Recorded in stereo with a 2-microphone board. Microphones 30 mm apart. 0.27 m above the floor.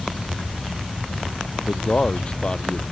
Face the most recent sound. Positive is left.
turn(degrees=30)  # may be behind; listen again after turning